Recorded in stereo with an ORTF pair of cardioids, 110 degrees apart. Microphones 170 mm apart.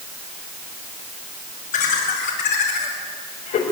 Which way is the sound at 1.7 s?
65° left.